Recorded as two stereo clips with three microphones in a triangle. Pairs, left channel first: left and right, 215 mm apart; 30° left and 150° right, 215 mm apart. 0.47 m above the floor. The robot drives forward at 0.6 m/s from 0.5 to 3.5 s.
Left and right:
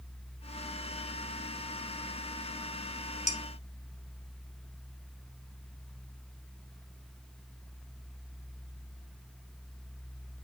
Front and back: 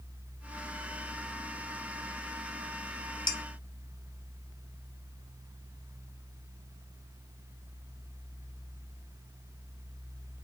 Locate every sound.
3.3 s dishes clattering: 40° left, 1.5 m